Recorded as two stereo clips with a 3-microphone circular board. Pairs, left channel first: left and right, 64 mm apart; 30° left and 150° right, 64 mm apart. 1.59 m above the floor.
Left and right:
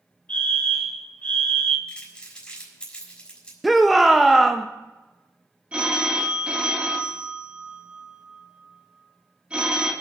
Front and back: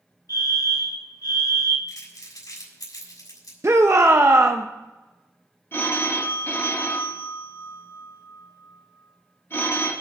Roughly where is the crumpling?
Ahead.